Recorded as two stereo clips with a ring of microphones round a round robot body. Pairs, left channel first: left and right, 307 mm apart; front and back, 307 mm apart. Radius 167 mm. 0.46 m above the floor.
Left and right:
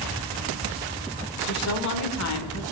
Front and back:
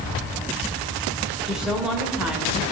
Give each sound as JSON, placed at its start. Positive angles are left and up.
{"t": 1.5, "sound": "a woman speaking", "azimuth_deg": 95, "distance_m": 1.5}